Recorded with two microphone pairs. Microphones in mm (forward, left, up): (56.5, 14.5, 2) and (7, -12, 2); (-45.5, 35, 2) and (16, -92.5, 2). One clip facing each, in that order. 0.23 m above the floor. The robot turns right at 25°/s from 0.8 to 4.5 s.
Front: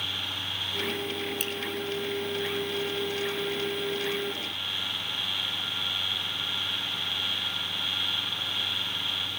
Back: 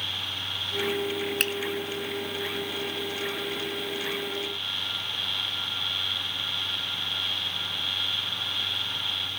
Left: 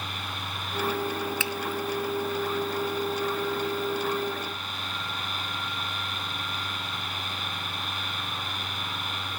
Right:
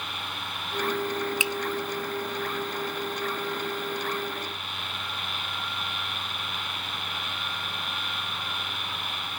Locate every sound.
1.4 s a finger snap: 135° right, 1.8 m